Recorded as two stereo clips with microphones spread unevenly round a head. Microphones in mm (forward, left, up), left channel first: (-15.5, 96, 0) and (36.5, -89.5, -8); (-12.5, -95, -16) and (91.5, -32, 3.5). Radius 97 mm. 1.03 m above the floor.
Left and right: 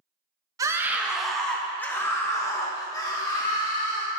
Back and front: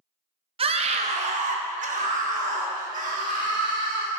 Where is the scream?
5° right, 1.0 m; by 4.1 s 40° left, 3 m.